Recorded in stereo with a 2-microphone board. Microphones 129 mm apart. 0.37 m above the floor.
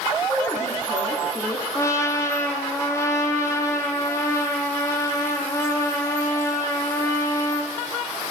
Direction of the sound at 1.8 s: 20° left (ahead or behind).